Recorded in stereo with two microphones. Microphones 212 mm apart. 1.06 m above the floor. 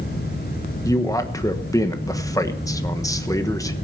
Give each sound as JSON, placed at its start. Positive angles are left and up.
{"t": 0.8, "sound": "a man speaking", "side_deg": 15, "distance_m": 1.1}